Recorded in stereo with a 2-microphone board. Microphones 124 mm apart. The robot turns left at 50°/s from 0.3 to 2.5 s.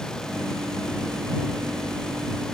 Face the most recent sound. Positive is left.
No sound to turn to.